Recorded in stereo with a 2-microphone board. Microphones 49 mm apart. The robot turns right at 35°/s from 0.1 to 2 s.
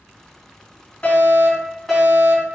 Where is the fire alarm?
145° left, 3.5 m; by 2.5 s straight behind, 3.5 m.